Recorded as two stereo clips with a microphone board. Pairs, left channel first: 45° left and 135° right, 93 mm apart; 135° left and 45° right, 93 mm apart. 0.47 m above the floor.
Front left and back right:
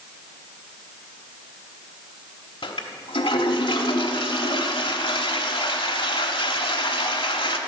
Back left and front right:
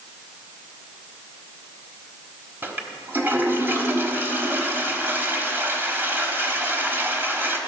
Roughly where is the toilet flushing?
Ahead.